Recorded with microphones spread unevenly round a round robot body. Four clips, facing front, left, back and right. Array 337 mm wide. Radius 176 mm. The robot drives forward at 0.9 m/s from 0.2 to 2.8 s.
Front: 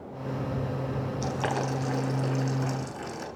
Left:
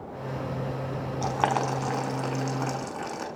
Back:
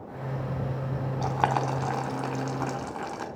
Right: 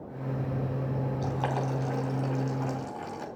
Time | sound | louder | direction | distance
1.2 | boiling | left 8 dB, back 5 dB | 125° left | 5 m